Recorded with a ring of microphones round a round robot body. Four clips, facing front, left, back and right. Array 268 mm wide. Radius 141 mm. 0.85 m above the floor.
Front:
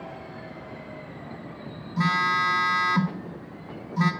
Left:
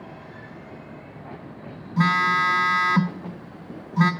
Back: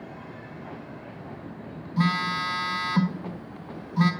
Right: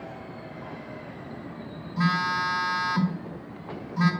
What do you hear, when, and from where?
2.0 s a phone buzzing: 95° left, 0.8 m